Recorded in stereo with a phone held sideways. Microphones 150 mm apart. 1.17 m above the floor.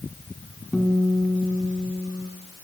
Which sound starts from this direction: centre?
A guitar, at 0.7 s.